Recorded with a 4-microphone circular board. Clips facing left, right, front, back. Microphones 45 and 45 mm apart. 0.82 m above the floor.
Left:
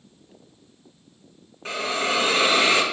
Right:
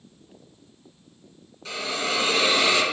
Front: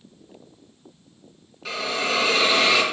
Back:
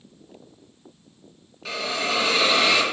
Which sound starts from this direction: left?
A hiss, at 1.6 s.